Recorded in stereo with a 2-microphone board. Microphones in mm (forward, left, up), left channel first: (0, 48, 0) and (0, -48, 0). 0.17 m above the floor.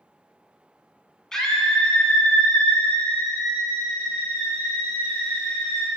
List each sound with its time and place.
1.3 s a scream: 5° left (ahead or behind), 1.1 m; by 5.9 s 15° left (ahead or behind), 4 m